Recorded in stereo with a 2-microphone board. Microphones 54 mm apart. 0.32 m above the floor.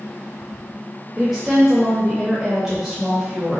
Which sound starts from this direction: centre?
A woman speaking, at 1.2 s.